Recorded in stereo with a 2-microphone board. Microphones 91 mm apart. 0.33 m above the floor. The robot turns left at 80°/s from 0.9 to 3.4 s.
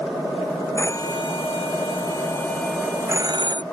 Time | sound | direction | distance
0.8 | a phone ringing | 35° left (ahead or behind) | ?